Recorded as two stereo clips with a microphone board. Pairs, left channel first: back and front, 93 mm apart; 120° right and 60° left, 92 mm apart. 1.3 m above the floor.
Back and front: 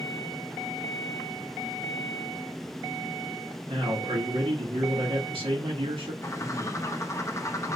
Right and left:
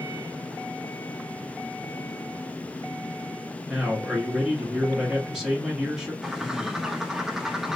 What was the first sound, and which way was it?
A man speaking, 25° right.